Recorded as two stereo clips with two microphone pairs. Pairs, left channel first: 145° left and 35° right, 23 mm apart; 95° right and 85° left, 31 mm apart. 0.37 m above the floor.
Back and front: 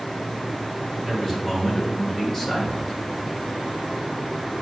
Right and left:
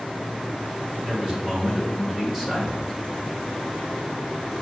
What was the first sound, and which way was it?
A man speaking, 65° left.